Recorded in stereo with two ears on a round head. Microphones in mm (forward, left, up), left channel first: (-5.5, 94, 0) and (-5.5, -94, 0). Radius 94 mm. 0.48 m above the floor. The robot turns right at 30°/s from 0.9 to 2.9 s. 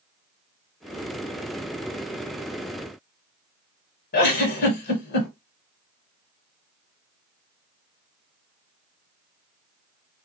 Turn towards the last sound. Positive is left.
turn(degrees=50)  # may be behind; listen again after turning